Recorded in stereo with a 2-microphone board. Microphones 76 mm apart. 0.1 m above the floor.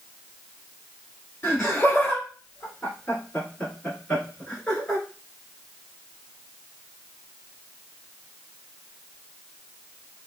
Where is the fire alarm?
I don't hear a fire alarm.